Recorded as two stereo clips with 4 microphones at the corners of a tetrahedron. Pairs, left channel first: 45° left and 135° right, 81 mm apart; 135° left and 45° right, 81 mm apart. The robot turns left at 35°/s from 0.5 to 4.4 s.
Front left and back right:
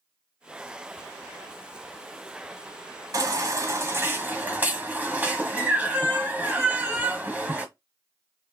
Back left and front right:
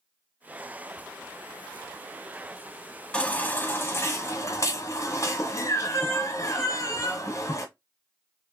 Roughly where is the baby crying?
Behind right.